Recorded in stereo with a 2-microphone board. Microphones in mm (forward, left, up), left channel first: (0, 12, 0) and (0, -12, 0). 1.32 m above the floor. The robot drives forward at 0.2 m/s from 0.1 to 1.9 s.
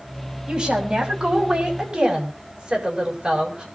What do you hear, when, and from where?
0.5 s a woman speaking: 30° right (ahead or behind), 7 m